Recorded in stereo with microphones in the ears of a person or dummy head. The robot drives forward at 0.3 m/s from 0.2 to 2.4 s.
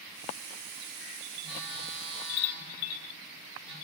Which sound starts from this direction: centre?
A phone buzzing, at 1.4 s.